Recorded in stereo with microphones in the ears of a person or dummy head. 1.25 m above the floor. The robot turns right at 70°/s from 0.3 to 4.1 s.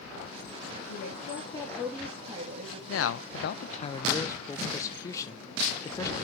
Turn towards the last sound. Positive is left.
turn(degrees=20)  # may be behind; listen again after turning